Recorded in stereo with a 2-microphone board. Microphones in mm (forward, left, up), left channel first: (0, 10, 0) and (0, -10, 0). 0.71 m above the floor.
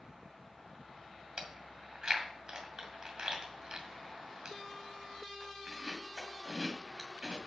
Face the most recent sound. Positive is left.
turn(degrees=-40)  # may be behind; listen again after turning